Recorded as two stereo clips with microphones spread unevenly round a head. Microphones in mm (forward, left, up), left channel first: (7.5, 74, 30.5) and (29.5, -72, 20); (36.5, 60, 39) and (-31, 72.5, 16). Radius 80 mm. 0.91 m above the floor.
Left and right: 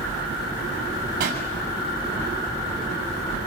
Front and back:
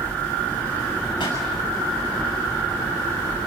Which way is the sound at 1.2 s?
50° right.